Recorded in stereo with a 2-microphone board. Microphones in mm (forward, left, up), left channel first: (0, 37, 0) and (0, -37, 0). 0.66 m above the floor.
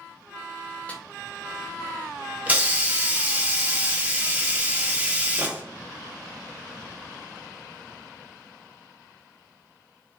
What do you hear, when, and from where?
0.9 s a snare drum: 20° left (ahead or behind), 0.7 m
2.5 s a hiss: 20° right (ahead or behind), 0.5 m